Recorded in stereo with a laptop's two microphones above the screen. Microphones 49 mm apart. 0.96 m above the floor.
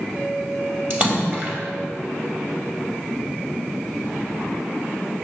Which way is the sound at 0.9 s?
35° right (ahead or behind).